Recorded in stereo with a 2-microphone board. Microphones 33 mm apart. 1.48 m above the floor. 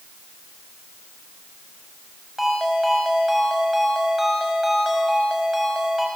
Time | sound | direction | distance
2.4 | a ringtone | 5° right (ahead or behind) | 5.5 m